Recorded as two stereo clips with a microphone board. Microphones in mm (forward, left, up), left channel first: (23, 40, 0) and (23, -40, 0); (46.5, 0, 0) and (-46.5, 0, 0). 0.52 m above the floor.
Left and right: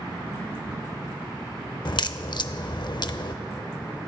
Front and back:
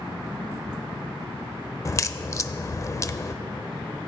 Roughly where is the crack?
Ahead left.